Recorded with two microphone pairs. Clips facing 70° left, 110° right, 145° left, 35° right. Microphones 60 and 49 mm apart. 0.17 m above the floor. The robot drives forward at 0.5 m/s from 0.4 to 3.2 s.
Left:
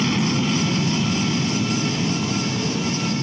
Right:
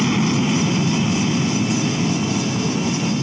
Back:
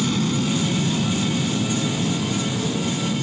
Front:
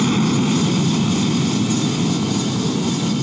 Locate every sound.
0.0 s an aircraft: 45° right; by 3.2 s 55° right